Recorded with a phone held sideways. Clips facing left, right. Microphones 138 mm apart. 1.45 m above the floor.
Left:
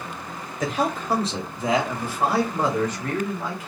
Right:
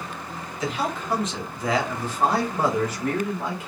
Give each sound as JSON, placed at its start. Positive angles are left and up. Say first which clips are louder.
{"t": 0.6, "sound": "a man speaking", "louder": "left 3 dB", "side_deg": 50, "distance_m": 1.3}